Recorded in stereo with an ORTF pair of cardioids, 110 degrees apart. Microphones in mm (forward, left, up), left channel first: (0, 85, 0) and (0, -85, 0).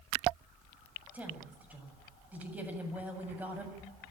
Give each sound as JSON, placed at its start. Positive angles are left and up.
{"t": 1.1, "sound": "a woman speaking", "azimuth_deg": -10, "distance_m": 7.5}